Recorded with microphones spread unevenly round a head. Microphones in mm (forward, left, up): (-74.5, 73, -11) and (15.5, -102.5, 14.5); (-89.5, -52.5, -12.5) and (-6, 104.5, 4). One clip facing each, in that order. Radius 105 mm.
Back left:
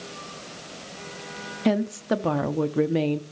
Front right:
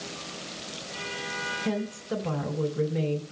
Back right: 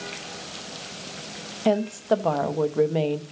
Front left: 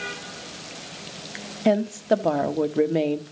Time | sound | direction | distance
1.6 | a woman speaking | 140° left | 0.7 m